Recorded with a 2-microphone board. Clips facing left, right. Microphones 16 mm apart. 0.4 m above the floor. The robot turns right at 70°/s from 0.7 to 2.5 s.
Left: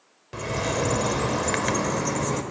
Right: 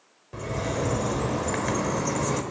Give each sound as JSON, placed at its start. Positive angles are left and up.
{"t": 0.3, "sound": "a bird", "azimuth_deg": 65, "distance_m": 0.9}